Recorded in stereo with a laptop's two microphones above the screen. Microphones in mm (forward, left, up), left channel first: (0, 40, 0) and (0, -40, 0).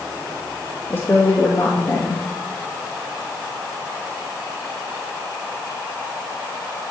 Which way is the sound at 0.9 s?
30° left (ahead or behind).